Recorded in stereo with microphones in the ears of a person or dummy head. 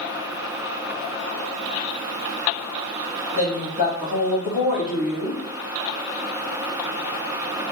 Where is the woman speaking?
15° right (ahead or behind), 1.0 m.